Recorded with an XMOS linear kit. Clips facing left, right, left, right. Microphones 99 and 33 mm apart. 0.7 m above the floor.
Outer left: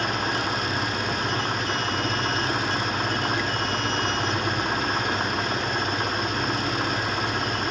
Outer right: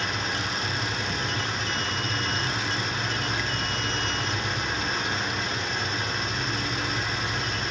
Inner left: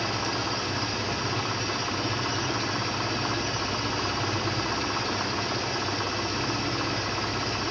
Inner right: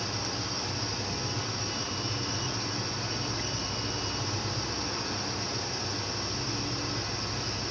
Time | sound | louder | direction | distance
0.0 | an engine running | outer left 4 dB, inner left 6 dB | 50° left (ahead or behind) | 0.9 m